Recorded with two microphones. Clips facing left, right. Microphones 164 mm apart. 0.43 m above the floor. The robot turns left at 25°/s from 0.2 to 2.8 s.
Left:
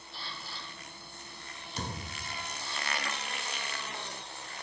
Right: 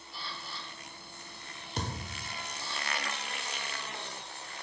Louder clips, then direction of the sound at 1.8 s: Right 2 dB; 50° right (ahead or behind).